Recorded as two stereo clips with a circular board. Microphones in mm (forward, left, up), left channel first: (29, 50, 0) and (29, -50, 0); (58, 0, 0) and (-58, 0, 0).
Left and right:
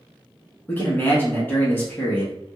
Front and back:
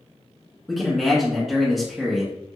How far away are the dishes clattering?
No dishes clattering in this recording.